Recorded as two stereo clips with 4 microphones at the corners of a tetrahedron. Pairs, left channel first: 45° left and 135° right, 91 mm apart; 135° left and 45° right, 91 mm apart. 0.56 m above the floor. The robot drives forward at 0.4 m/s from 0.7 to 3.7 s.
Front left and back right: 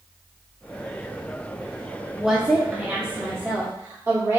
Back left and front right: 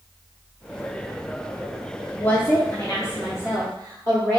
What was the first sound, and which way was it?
A woman speaking, 140° left.